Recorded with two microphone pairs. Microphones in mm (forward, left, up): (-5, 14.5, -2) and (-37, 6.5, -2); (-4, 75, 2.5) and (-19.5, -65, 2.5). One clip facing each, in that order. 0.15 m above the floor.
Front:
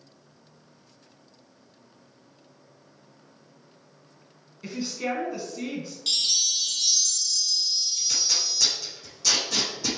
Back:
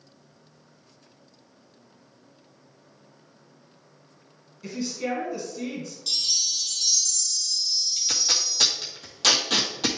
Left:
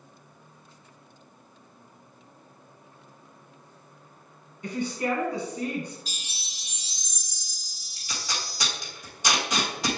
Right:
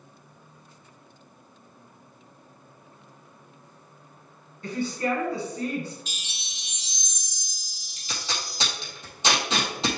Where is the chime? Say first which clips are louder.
Front 2 dB, right 1 dB; 40° left, 0.9 m.